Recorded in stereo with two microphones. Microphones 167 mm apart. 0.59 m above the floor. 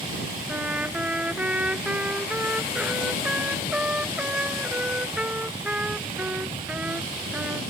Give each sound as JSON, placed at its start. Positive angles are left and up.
{"t": 0.5, "sound": "a trumpet", "side_deg": -10}